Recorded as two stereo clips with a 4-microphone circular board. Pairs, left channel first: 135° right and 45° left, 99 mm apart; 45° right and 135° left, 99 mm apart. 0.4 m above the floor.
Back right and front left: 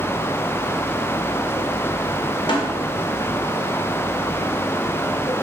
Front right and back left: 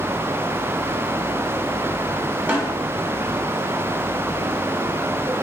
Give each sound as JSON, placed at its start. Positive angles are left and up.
{"t": 2.5, "sound": "a snare drum", "azimuth_deg": -155, "distance_m": 1.7}